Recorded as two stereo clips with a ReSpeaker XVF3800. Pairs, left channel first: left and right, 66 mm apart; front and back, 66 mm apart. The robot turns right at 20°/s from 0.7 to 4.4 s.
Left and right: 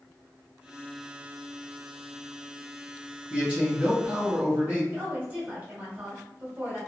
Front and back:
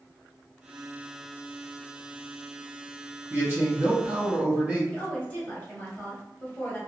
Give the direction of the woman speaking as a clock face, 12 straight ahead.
2 o'clock.